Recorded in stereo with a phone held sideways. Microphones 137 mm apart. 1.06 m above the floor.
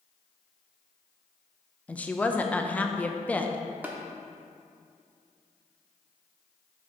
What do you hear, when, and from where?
1.9 s a woman speaking: 10° left (ahead or behind), 0.5 m
3.8 s tapping: 10° right (ahead or behind), 0.8 m